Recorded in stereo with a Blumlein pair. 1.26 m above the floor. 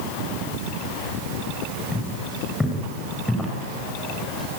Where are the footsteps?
Straight ahead, 8.5 m.